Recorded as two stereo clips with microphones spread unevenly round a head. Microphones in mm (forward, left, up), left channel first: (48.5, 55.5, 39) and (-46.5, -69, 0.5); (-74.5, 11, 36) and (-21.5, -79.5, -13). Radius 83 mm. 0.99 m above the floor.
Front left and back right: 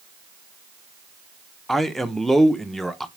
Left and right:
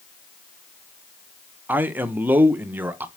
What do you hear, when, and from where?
1.7 s a man speaking: 50° right, 0.7 m